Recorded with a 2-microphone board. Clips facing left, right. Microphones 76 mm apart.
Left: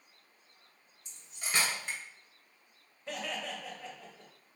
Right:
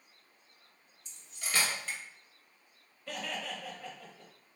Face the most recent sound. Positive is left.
turn(degrees=20)  # may be behind; listen again after turning